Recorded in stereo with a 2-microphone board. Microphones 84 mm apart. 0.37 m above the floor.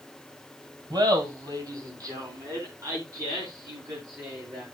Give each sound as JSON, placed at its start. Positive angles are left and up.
{"t": 0.9, "sound": "laughter", "side_deg": -55, "distance_m": 2.0}